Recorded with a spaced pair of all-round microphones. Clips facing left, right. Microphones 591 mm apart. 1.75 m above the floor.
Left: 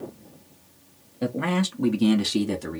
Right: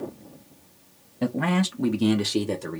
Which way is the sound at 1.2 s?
25° right (ahead or behind).